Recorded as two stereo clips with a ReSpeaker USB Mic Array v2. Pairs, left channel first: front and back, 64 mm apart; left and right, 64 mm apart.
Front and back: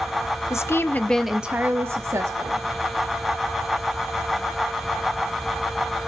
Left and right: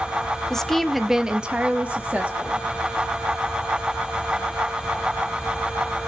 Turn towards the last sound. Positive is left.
turn(degrees=-155)